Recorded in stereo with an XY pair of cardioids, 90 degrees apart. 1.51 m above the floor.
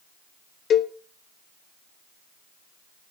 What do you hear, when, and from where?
0.7 s a cowbell: 65° left, 1.4 m